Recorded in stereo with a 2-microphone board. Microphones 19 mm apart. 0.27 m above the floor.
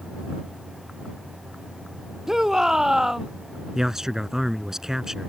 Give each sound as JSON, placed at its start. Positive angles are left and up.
{"t": 2.3, "sound": "a shout", "side_deg": -25}
{"t": 3.8, "sound": "a man speaking", "side_deg": -25}